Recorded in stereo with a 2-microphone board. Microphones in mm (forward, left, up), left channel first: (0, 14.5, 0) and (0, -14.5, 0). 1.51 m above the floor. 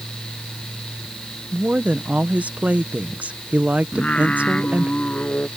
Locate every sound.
1.5 s a woman speaking: 50° right (ahead or behind)
3.9 s singing: 45° left (ahead or behind)